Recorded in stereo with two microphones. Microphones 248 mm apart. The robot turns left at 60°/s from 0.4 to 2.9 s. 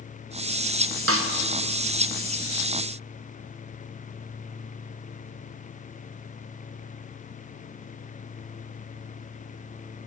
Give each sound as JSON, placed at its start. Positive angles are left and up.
{"t": 1.1, "sound": "a snare drum", "side_deg": -70, "distance_m": 0.6}